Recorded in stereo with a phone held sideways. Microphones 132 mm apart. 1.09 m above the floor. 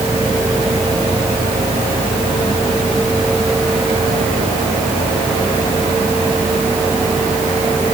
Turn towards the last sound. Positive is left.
No sound to turn to.